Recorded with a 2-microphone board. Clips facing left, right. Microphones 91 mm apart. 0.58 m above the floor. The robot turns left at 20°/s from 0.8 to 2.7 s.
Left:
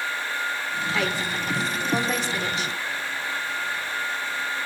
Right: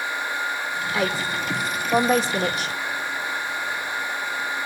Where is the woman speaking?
10° right (ahead or behind), 1.7 m; by 2.8 s 40° right (ahead or behind), 1.7 m.